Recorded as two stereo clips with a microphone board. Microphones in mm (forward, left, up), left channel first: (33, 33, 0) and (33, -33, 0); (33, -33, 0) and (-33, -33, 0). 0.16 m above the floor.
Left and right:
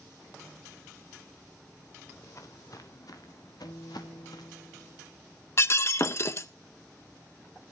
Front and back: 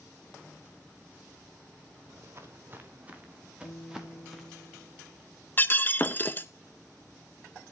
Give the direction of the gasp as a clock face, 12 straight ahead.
No gasp in this recording.